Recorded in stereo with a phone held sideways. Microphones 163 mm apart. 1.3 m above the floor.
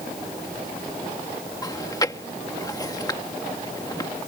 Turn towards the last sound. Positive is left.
turn(degrees=20)  # may be behind; listen again after turning